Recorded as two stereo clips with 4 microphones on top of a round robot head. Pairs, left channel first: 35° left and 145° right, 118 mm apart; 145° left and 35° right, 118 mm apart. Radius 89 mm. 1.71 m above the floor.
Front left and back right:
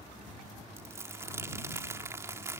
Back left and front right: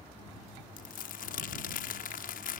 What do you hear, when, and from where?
0.8 s crumpling: 145° left